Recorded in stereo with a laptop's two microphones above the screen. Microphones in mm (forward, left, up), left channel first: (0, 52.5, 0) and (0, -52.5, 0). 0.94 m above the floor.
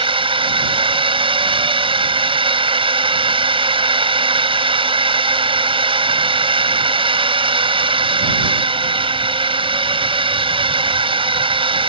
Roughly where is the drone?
Right.